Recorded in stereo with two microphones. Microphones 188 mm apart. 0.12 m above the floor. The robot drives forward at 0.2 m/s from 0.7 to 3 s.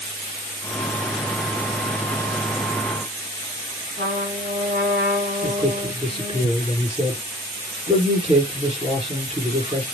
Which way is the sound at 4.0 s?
55° right (ahead or behind).